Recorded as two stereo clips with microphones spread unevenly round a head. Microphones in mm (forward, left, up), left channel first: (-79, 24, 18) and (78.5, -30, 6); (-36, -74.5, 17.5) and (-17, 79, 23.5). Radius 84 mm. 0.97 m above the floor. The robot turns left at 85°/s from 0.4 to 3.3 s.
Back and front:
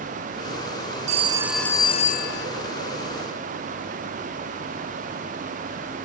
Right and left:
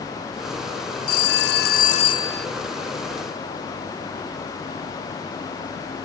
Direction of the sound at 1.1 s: 65° right.